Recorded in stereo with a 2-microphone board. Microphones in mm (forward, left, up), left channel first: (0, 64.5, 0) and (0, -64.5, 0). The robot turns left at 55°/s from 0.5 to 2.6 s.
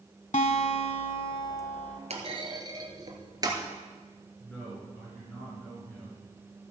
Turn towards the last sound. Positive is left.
turn(degrees=15)  # may be behind; listen again after turning